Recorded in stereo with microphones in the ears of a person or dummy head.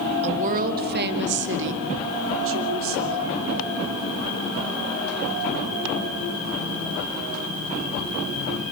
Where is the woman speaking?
35° right (ahead or behind), 1.5 m; by 3.4 s 80° right, 4 m.